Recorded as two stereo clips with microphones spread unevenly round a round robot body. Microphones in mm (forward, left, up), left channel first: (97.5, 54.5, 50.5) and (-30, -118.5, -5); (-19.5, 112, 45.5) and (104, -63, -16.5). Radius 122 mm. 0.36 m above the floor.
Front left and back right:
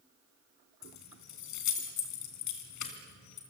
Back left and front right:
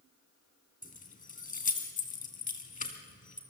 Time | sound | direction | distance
0.8 | keys jangling | 65° left | 3 m